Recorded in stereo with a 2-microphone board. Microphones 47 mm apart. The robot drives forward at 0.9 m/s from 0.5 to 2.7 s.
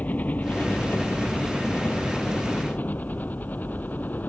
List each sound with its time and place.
0.0 s a helicopter: 35° left (ahead or behind); by 4.3 s 40° left (ahead or behind)